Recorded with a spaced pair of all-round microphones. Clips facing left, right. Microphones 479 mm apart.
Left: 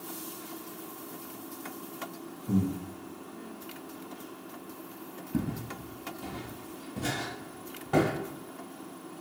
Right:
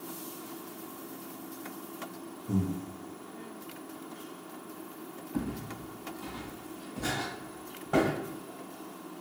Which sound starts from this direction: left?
Footsteps, at 5.3 s.